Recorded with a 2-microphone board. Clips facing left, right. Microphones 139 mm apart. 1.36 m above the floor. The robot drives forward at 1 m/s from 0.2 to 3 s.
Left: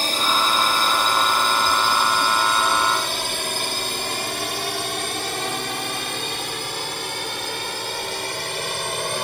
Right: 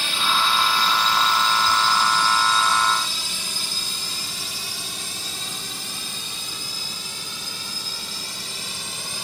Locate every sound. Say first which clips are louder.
0.0 s a drone: left 2 dB; 45° left (ahead or behind); by 9.2 s 70° left (ahead or behind)